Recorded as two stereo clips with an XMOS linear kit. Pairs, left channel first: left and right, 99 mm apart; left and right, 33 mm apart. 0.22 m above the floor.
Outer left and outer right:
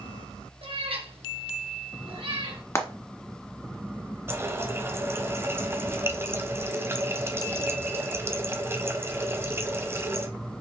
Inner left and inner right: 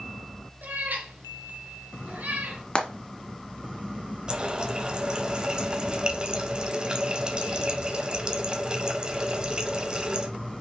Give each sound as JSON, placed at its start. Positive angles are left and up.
{"t": 0.6, "sound": "a cat meowing", "side_deg": -65, "distance_m": 2.0}
{"t": 2.8, "sound": "frying", "side_deg": 30, "distance_m": 1.4}
{"t": 4.3, "sound": "a running tap", "side_deg": -25, "distance_m": 0.8}